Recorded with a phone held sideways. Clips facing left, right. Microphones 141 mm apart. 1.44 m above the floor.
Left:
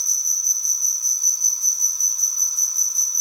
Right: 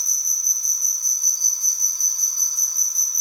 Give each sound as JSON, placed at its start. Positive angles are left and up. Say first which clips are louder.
{"t": 0.0, "sound": "an insect", "louder": "even", "side_deg": 5, "distance_m": 2.5}